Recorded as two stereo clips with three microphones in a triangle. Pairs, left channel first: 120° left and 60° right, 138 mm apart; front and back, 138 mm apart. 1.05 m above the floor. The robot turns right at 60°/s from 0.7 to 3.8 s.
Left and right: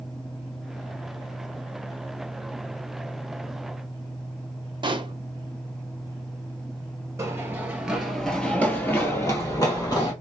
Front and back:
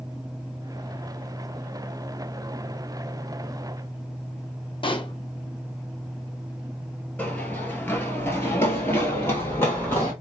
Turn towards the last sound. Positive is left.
turn(degrees=70)